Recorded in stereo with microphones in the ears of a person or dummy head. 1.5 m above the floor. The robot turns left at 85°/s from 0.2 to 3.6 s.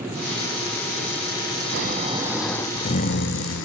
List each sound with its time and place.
1.7 s snoring: 120° right, 0.5 m; by 3.6 s 80° left, 0.5 m